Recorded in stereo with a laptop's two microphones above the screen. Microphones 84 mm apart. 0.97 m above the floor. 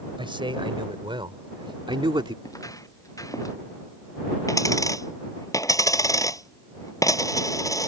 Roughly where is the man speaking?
Right.